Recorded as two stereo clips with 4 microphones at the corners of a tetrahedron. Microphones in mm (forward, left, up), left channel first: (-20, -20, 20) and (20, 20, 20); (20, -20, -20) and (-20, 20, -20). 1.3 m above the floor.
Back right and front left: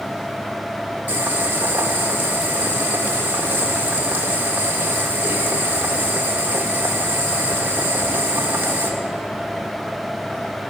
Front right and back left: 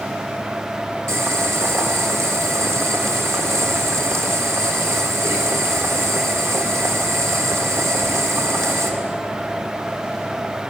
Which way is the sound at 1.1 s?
100° left.